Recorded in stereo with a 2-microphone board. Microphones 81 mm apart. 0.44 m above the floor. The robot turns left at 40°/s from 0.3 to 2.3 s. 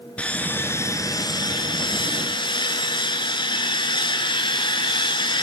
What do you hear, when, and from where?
0.2 s sawing: 165° left, 0.8 m; by 5.4 s 85° left, 0.8 m